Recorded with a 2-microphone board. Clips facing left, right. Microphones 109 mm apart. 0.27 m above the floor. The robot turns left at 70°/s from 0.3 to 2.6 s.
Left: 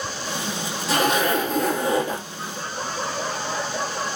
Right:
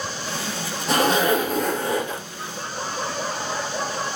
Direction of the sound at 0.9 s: 130° right.